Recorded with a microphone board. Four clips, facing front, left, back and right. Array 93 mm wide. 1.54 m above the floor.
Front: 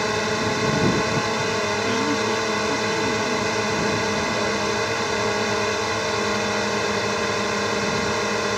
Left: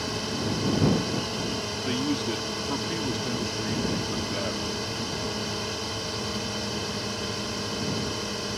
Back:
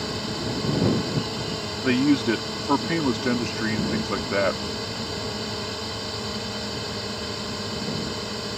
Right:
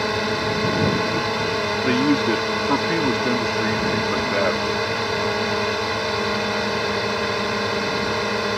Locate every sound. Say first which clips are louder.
0.0 s a drone: right 8 dB, front 7 dB; 50° right
1.8 s a man speaking: right 9 dB, back 2 dB; 135° right